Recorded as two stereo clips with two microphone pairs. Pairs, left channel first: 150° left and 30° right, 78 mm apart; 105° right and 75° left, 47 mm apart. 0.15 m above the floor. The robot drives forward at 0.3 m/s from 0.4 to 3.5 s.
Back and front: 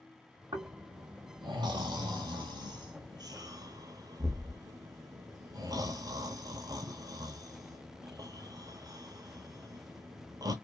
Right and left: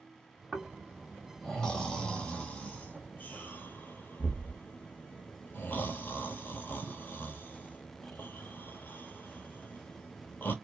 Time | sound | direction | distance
0.5 | snoring | 25° right | 1.3 m